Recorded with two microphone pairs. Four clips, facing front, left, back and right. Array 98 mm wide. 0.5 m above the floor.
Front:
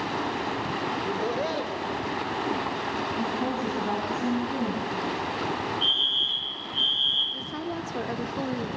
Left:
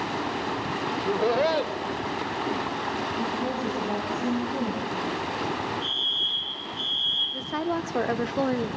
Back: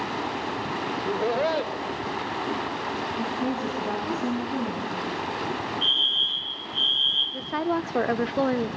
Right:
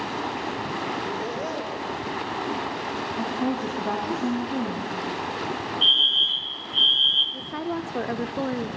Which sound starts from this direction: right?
A woman speaking, at 3.2 s.